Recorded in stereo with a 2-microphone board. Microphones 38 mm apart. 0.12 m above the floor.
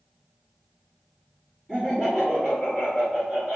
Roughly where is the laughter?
Centre.